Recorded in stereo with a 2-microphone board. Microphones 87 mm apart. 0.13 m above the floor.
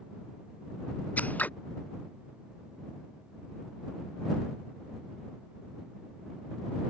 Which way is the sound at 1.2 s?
20° left (ahead or behind).